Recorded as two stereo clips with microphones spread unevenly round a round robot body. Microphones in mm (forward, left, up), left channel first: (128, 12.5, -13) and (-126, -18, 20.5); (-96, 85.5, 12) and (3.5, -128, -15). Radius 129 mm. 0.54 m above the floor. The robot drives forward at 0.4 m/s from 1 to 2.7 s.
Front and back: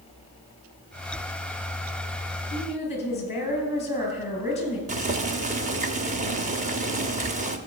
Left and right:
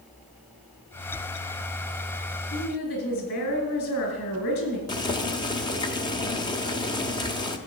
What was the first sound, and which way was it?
A woman speaking, 70° left.